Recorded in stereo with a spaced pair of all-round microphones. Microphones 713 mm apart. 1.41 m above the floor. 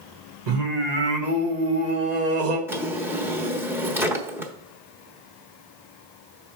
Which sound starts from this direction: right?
Singing, at 0.5 s.